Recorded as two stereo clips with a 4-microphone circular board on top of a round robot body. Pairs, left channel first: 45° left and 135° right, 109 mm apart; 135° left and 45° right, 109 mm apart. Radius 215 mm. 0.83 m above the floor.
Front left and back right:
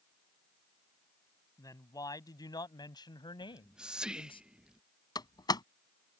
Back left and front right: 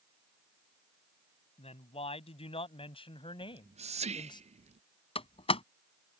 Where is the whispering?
55° right.